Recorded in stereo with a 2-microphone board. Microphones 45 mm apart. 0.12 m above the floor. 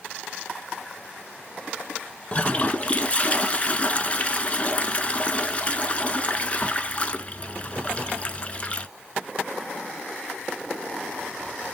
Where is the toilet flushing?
25° left (ahead or behind), 0.6 m.